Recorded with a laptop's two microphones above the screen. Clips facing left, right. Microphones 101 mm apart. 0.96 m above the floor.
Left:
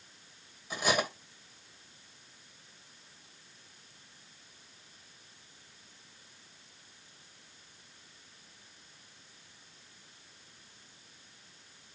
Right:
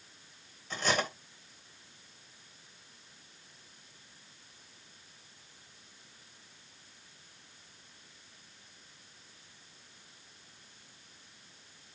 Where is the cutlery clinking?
10° left (ahead or behind), 3 m.